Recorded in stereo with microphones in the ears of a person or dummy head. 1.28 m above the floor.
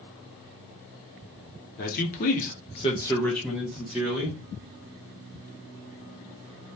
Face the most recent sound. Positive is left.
turn(degrees=-15)  # may be behind; listen again after turning